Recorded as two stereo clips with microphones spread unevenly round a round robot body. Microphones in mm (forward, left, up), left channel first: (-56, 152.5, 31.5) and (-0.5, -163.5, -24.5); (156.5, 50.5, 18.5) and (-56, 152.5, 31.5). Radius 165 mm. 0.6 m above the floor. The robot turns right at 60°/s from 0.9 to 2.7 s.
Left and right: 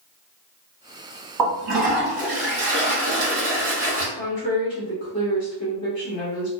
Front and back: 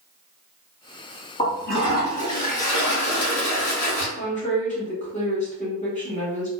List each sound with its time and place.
1.4 s a toilet flushing: 105° right, 1.2 m; by 4.1 s 25° right, 1.2 m
4.2 s a woman speaking: 20° left, 1.2 m